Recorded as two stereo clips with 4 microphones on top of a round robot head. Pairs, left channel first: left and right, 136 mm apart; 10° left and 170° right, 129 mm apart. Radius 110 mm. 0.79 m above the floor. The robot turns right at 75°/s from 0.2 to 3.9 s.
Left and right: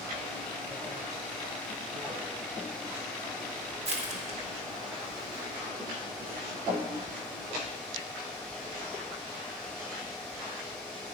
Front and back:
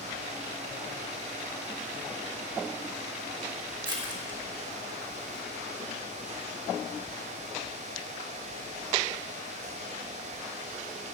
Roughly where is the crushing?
Behind right.